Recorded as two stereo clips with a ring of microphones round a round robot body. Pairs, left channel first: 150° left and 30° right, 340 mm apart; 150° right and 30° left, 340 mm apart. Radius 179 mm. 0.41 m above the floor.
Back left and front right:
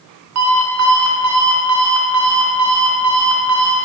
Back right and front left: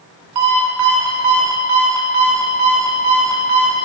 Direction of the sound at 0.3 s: 15° left.